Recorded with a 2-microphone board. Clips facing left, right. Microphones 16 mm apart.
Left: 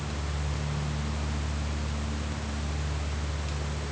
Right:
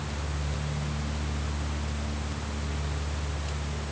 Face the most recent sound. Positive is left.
No sound to turn to.